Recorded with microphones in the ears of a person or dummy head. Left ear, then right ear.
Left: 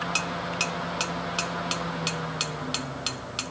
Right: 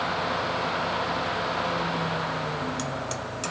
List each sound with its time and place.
Only background noise.